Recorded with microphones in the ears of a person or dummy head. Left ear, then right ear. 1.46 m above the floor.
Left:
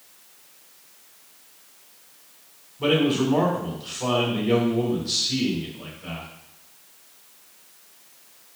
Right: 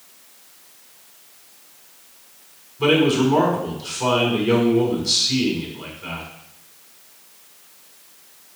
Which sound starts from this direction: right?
A man speaking, at 2.8 s.